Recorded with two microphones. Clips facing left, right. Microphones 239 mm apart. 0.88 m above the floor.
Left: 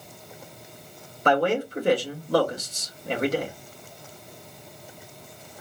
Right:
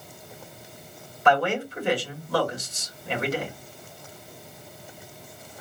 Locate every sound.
1.2 s a man speaking: 40° left (ahead or behind), 1.8 m